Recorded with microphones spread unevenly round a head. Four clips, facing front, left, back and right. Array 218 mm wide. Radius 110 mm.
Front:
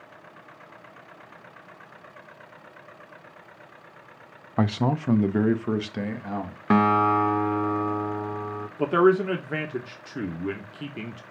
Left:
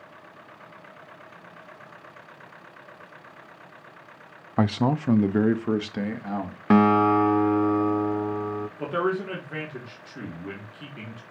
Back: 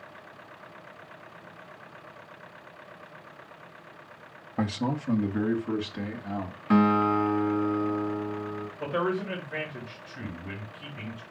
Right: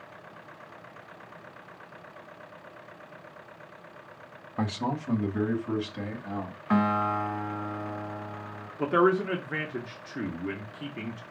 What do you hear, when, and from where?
4.6 s a man speaking: 60° left, 0.6 m; by 6.6 s 50° left, 1.8 m
6.7 s a guitar: 60° left, 0.9 m
8.8 s a man speaking: 15° right, 1.7 m